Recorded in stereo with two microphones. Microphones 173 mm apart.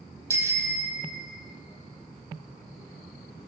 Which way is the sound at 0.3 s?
15° right (ahead or behind).